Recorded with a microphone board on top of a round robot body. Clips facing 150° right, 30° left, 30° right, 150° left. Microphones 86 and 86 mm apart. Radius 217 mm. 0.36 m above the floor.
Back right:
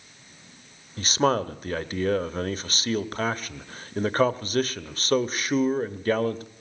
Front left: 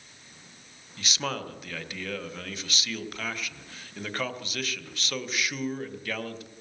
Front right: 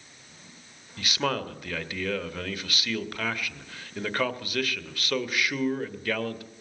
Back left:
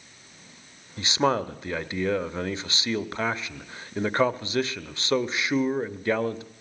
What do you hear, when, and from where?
1.0 s a man speaking: 160° right, 1.1 m